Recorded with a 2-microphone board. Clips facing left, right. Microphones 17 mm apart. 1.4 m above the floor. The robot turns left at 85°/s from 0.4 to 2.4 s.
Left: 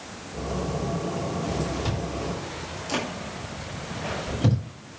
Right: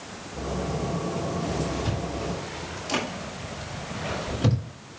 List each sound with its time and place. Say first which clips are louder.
1.9 s chewing: even; 40° left (ahead or behind), 7.5 m; by 4.6 s 10° right (ahead or behind), 7.5 m